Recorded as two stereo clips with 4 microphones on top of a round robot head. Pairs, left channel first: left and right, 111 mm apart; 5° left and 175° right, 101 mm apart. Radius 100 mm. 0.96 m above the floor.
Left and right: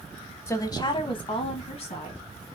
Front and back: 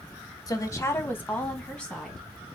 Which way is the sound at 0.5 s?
35° left.